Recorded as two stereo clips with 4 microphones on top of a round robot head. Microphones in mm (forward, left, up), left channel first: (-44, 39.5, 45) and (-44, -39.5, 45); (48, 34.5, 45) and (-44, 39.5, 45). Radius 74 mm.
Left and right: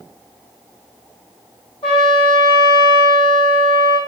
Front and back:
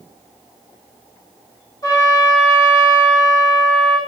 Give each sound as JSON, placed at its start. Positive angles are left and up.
{"t": 1.8, "sound": "a trumpet", "azimuth_deg": 45, "distance_m": 0.7}